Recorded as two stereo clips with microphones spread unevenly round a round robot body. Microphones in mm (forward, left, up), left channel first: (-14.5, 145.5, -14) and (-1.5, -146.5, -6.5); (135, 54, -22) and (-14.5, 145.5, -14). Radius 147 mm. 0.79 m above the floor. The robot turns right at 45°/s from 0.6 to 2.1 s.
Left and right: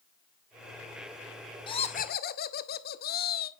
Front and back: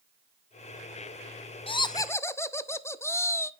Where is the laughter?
20° left, 0.5 m; by 3.5 s 40° left, 0.5 m.